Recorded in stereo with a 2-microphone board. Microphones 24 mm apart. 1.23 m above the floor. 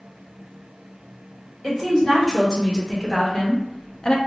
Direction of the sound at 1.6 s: 25° left (ahead or behind).